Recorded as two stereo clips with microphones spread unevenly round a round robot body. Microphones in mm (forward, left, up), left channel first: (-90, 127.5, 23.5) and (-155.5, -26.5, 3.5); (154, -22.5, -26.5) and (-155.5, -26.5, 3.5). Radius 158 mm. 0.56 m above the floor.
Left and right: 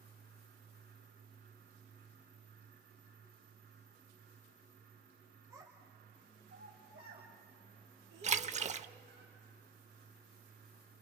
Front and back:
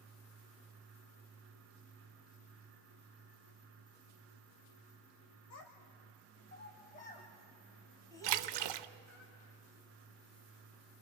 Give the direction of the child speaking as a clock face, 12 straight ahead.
1 o'clock.